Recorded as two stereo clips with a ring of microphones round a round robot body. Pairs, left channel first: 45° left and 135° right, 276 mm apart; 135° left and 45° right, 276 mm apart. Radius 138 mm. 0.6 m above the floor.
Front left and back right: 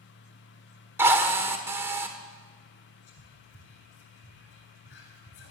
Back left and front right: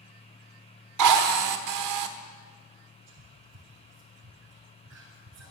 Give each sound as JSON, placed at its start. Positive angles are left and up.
{"t": 1.0, "sound": "a drill", "azimuth_deg": -55, "distance_m": 1.4}
{"t": 3.1, "sound": "whispering", "azimuth_deg": -5, "distance_m": 4.5}